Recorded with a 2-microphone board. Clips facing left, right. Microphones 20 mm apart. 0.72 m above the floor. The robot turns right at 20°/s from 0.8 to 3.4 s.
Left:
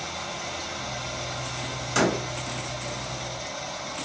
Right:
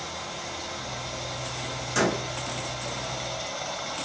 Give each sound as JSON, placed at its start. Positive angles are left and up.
{"t": 0.0, "sound": "running water", "azimuth_deg": 165, "distance_m": 1.6}
{"t": 1.9, "sound": "a door slam", "side_deg": 20, "distance_m": 2.0}